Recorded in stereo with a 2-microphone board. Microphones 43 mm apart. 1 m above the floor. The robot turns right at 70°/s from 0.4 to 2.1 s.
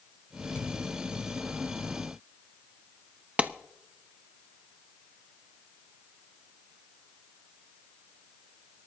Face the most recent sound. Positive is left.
turn(degrees=-35)  # may be behind; listen again after turning